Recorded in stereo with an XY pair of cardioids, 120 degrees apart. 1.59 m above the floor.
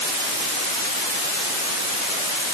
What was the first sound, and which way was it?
Only background noise.